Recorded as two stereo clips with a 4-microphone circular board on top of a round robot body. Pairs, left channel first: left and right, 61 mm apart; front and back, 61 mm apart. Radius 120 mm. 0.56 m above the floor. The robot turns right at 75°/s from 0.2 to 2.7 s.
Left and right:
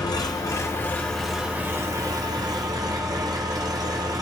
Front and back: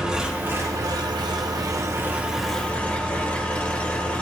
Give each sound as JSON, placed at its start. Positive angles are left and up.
{"t": 0.0, "sound": "an engine running", "azimuth_deg": 100, "distance_m": 1.4}